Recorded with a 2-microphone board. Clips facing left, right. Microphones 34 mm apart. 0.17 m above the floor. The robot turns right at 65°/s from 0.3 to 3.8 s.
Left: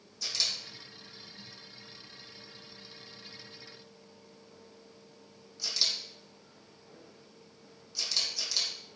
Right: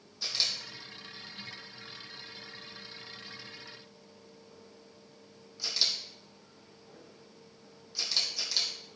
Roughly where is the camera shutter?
Right.